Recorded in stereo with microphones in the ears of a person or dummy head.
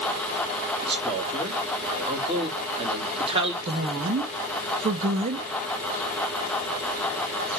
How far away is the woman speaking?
About 1.3 m.